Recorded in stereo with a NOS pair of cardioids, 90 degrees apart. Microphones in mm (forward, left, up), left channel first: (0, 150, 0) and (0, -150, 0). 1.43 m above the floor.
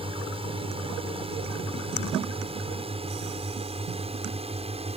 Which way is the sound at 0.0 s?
20° right.